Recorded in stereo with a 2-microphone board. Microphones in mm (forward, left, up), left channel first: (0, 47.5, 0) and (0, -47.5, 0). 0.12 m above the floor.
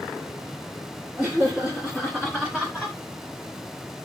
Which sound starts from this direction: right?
Laughter, at 1.2 s.